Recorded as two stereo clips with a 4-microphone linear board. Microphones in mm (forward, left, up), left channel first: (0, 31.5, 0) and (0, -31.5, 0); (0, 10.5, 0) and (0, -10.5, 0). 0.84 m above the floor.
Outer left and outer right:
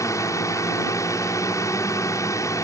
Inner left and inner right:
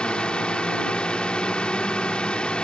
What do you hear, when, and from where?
0.0 s a drone: 55° left (ahead or behind)